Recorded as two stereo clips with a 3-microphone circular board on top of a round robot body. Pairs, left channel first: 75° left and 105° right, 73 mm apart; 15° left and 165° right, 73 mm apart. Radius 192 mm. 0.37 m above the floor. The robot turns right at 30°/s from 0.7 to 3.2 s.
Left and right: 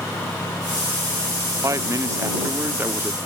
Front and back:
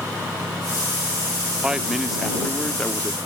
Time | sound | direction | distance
1.6 | a man speaking | 90° right | ?